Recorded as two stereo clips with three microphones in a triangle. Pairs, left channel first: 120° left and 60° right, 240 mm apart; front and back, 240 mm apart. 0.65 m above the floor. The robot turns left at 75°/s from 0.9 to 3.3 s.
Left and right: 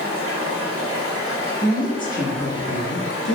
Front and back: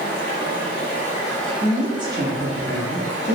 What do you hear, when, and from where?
0.0 s running water: 45° right, 1.0 m; by 3.4 s 135° left, 1.0 m
1.6 s a woman speaking: 155° left, 1.0 m; by 3.4 s 25° left, 1.0 m